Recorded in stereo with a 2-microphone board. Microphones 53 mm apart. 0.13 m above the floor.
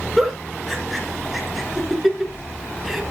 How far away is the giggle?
About 1.7 m.